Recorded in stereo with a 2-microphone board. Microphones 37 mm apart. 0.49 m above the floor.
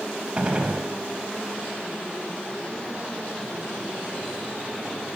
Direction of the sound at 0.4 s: 30° right (ahead or behind).